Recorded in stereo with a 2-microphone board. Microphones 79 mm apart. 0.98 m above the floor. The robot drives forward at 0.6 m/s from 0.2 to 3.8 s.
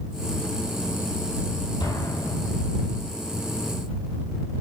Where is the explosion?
75° left (ahead or behind), 8.5 m; by 2.6 s 70° left (ahead or behind), 8.5 m.